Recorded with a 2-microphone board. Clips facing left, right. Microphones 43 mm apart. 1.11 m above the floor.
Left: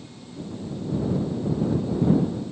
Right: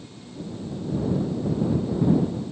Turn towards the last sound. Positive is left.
No sound to turn to.